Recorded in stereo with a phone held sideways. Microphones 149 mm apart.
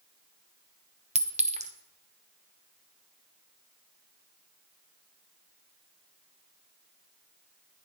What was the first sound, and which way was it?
A clink, 50° right (ahead or behind).